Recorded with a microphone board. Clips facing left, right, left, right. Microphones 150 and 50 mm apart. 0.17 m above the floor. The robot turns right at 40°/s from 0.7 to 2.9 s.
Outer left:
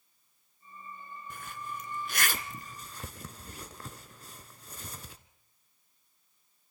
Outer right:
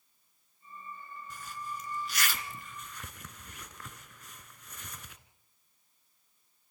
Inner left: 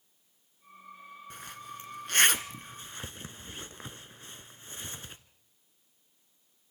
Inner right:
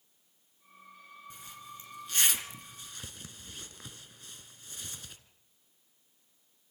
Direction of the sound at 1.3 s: 60° left (ahead or behind).